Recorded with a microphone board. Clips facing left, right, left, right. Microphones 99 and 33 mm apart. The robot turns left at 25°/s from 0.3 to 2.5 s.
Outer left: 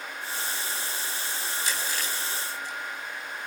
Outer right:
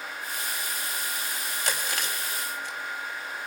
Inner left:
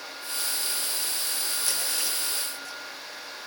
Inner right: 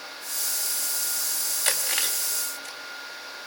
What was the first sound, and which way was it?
Chewing, 65° right (ahead or behind).